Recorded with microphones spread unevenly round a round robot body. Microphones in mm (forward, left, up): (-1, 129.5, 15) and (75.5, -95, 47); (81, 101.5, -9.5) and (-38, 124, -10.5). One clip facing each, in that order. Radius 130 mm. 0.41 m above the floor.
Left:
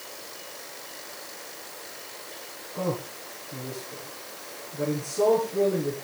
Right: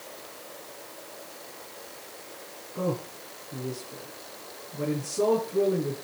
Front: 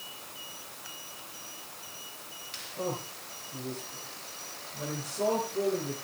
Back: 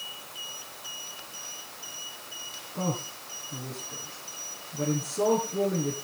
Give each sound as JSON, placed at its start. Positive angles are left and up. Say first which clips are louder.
{"t": 2.8, "sound": "a man speaking", "louder": "even, back 3 dB", "azimuth_deg": -150, "distance_m": 3.5}